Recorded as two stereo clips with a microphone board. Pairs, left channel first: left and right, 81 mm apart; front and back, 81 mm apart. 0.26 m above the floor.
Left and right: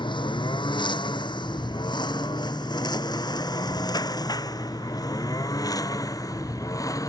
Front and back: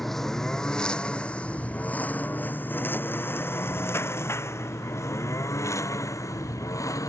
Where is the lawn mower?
85° left; by 7.1 s 45° left.